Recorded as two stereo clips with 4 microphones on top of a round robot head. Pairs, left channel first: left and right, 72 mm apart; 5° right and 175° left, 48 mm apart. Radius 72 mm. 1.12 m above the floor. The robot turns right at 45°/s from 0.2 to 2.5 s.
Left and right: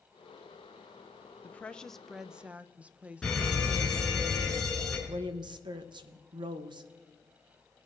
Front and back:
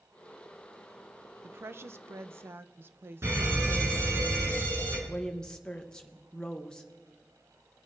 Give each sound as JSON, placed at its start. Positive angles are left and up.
{"t": 1.4, "sound": "a woman speaking", "azimuth_deg": 150, "distance_m": 0.6}
{"t": 3.2, "sound": "a fire alarm", "azimuth_deg": 170, "distance_m": 4.0}
{"t": 5.1, "sound": "a woman speaking", "azimuth_deg": -80, "distance_m": 0.9}